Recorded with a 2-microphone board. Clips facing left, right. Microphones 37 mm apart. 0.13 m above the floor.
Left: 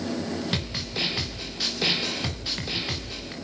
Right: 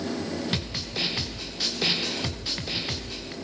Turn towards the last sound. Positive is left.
turn(degrees=0)  # may be behind; listen again after turning